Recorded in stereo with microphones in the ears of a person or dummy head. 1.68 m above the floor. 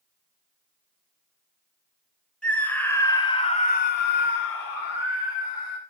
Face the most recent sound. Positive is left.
turn(degrees=45)  # may be behind; listen again after turning